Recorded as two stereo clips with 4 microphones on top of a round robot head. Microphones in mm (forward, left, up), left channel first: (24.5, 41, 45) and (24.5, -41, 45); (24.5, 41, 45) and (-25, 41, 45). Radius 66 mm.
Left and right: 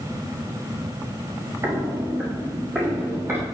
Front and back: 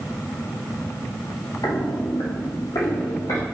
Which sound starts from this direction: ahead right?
Footsteps, at 1.6 s.